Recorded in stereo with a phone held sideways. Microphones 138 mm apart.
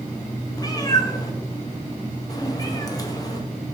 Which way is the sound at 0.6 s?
25° left (ahead or behind).